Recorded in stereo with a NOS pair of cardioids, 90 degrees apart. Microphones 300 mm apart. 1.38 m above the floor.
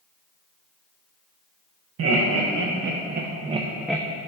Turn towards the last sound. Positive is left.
turn(degrees=10)